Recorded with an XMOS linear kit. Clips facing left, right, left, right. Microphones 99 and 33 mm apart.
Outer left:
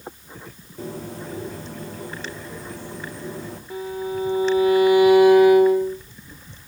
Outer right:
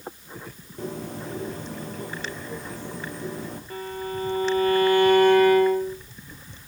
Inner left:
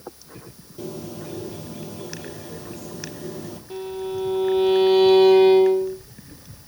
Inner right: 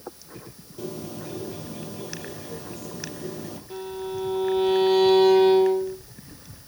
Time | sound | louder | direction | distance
0.8 | a bird | even, inner left 1 dB | centre (ahead or behind) | 3 m
3.7 | a violin | outer left 5 dB, inner left 3 dB | 10° left (ahead or behind) | 3 m